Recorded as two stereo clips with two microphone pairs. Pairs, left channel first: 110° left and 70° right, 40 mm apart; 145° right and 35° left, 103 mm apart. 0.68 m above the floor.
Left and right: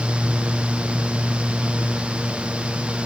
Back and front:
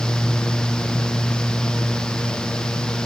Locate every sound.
Only background noise.